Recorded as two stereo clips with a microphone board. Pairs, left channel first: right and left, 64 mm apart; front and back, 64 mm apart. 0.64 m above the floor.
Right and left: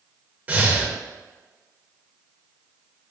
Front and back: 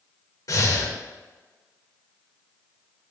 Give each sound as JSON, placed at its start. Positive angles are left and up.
{"t": 0.5, "sound": "breathing", "azimuth_deg": 25, "distance_m": 0.5}